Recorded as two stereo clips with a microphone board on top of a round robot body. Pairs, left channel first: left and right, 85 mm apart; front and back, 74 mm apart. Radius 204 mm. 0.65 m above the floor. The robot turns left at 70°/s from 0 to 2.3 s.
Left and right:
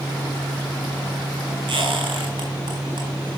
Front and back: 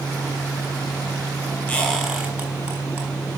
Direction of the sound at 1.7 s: 65° right.